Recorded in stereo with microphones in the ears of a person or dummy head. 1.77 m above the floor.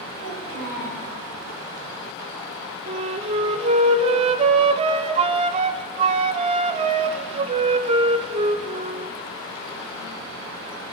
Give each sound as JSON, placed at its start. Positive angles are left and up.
{"t": 0.2, "sound": "a child speaking", "side_deg": -75, "distance_m": 6.5}
{"t": 2.9, "sound": "a flute", "side_deg": -35, "distance_m": 0.7}